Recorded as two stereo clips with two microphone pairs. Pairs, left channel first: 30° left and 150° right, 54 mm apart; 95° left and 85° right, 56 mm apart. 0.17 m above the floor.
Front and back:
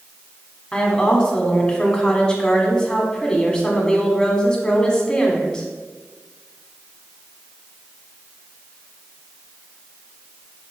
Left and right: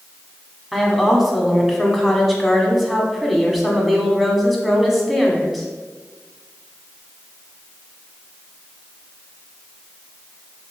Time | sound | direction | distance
0.7 | a woman speaking | straight ahead | 1.5 m